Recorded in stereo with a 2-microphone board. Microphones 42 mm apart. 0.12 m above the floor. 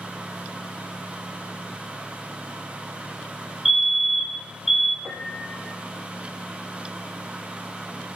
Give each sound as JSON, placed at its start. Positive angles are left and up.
{"t": 3.6, "sound": "a fire alarm", "side_deg": -5, "distance_m": 2.5}
{"t": 5.0, "sound": "a piano", "side_deg": -50, "distance_m": 3.0}